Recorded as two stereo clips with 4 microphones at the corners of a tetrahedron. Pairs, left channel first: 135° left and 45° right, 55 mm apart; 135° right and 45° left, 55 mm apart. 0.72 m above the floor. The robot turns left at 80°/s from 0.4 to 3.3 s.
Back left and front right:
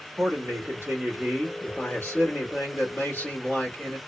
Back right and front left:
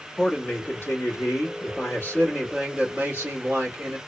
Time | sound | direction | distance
0.2 | a man speaking | 60° right | 1.9 m